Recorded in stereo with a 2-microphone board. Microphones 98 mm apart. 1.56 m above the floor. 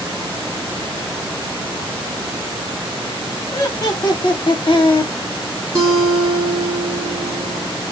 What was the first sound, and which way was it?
Laughter, 35° left (ahead or behind).